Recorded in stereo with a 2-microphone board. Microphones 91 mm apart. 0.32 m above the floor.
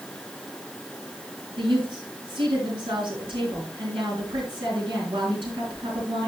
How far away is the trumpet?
No trumpet in this recording.